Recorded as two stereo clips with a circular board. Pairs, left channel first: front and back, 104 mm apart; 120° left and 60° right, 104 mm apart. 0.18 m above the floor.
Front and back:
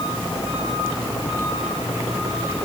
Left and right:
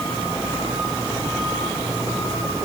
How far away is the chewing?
I don't hear chewing.